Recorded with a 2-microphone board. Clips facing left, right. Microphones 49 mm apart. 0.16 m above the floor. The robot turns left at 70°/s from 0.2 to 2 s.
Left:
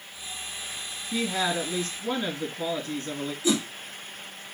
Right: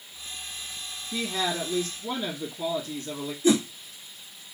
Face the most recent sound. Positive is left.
turn(degrees=-35)  # may be behind; listen again after turning